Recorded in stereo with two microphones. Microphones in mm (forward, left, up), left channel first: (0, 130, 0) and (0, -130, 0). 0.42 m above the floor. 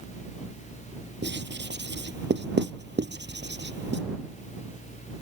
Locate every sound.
1.2 s writing: 45° right (ahead or behind)